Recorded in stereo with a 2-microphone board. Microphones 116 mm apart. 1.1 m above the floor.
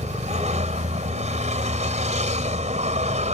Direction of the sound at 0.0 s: 85° right.